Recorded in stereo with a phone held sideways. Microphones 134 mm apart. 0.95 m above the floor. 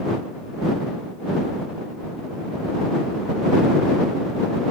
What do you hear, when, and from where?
Only background noise.